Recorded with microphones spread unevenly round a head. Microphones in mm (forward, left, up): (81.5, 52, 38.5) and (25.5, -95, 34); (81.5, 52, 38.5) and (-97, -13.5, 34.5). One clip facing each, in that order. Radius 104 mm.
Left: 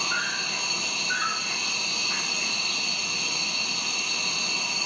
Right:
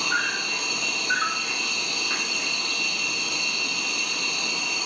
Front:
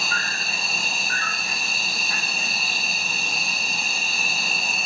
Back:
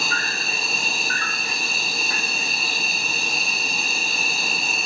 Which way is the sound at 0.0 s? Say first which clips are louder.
Right 3 dB, back 3 dB; 135° right.